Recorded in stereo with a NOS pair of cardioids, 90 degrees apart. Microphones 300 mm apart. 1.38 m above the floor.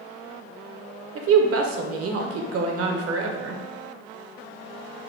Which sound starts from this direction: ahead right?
A woman speaking, at 1.1 s.